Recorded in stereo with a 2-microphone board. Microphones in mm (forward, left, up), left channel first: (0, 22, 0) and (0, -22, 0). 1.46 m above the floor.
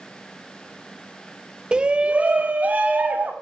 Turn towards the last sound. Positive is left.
turn(degrees=-40)  # may be behind; listen again after turning